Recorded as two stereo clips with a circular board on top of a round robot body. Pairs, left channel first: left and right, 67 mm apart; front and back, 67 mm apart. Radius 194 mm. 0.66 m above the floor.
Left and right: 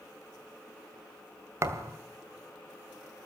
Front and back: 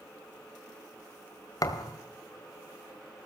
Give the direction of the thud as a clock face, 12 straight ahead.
1 o'clock.